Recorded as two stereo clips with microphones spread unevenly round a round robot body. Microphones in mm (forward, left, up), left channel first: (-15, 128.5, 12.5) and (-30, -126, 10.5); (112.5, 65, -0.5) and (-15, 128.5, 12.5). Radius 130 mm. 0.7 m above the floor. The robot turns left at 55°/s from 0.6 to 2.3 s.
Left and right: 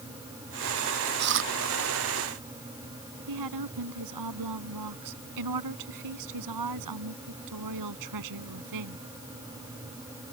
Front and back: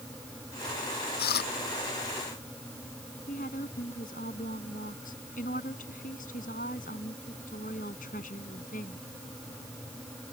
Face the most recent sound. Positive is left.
turn(degrees=-85)